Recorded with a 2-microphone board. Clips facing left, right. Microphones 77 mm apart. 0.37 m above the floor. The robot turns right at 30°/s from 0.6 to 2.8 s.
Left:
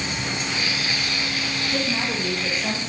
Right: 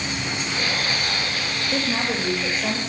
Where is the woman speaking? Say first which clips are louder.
Right 2 dB; 95° right, 1.7 m; by 2.8 s 60° right, 1.7 m.